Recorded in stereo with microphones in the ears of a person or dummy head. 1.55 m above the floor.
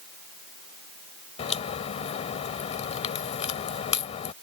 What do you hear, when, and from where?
1.4 s a crack: 40° left (ahead or behind)